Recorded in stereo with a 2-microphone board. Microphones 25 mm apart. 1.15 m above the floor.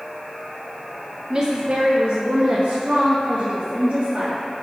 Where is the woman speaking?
30° right (ahead or behind), 0.8 m; by 4.3 s 80° right, 2 m.